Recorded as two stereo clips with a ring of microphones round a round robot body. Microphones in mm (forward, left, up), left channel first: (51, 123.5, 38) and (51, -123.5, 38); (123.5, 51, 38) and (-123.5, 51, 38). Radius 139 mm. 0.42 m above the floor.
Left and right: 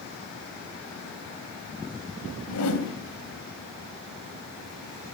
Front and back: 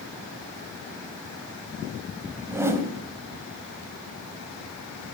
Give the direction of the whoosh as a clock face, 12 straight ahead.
9 o'clock.